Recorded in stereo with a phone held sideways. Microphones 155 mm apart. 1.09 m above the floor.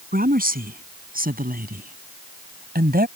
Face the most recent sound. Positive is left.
turn(degrees=-70)  # may be behind; listen again after turning